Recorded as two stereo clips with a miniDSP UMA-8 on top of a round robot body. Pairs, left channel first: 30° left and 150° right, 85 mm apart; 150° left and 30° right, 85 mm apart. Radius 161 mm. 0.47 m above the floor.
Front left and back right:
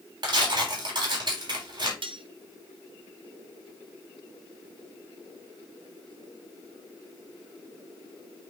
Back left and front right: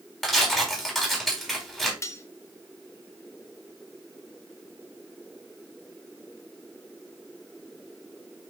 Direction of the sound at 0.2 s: 125° right.